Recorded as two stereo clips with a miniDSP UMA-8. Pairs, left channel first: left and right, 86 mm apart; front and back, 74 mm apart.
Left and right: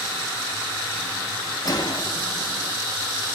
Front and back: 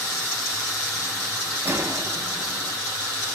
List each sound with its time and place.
1.6 s a gunshot: 130° left, 0.6 m